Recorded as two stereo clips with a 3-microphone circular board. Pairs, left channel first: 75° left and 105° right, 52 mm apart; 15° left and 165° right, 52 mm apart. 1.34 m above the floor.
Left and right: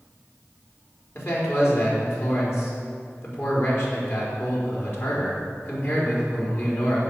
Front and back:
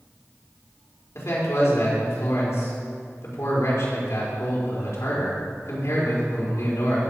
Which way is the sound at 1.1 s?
40° left.